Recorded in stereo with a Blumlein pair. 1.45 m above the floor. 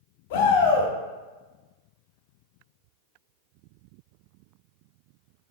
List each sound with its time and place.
0.3 s a shout: 50° left, 0.9 m